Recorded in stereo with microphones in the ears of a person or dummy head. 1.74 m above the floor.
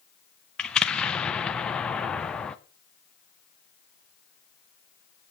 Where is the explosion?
10° left (ahead or behind), 0.7 m.